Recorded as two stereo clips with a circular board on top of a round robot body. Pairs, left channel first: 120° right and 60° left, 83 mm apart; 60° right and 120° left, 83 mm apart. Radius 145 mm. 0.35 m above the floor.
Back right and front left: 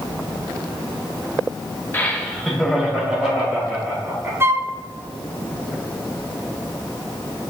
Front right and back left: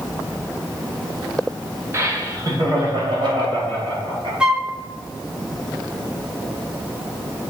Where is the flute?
55° left, 0.8 m.